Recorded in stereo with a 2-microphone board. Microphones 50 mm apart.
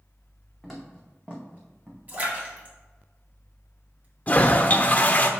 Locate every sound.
0.6 s footsteps: 5° right (ahead or behind), 2 m; by 2.0 s 40° right (ahead or behind), 2 m
2.1 s a splash: 35° right (ahead or behind), 2 m
4.3 s a toilet flushing: 35° left (ahead or behind), 0.6 m